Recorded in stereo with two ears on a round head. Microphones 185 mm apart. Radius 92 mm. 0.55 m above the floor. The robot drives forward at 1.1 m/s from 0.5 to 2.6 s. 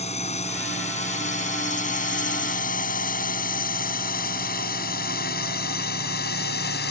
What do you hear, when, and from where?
0.0 s a drone: 35° left (ahead or behind); by 6.9 s 50° left (ahead or behind)